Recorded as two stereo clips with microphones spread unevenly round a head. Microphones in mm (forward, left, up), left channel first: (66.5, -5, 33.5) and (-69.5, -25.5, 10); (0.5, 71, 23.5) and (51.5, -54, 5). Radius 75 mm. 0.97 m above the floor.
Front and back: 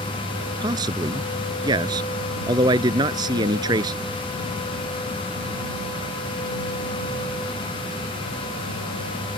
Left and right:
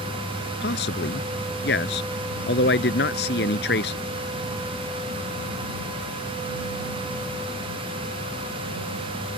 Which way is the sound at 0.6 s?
125° left.